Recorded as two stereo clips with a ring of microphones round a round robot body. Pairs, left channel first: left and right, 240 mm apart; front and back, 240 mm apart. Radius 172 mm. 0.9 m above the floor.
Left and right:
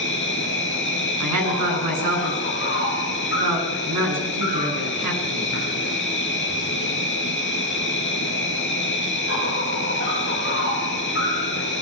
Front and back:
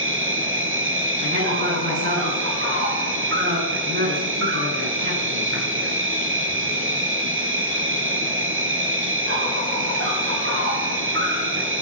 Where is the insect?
150° left, 5 m.